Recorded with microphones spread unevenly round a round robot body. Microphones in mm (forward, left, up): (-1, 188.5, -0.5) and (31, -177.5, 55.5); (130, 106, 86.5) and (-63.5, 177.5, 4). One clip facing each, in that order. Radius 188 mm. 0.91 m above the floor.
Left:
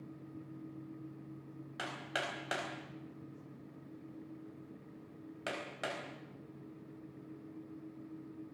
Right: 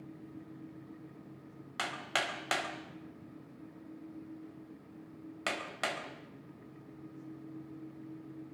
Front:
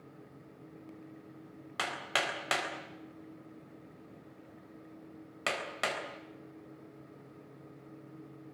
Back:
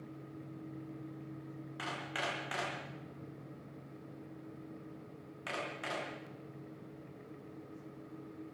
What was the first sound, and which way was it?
Hammering, 20° right.